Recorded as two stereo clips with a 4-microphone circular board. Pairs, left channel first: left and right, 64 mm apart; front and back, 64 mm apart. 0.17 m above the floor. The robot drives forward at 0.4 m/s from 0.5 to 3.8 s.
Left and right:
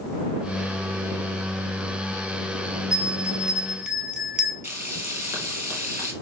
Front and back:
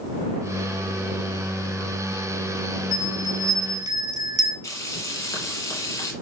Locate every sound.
2.9 s a bell: 165° right, 1.1 m; by 4.5 s 170° right, 1.4 m
4.6 s frying: 40° right, 3 m